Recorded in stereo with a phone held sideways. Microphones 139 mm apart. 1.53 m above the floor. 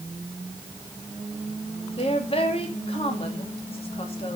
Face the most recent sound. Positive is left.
turn(degrees=45)  # may be behind; listen again after turning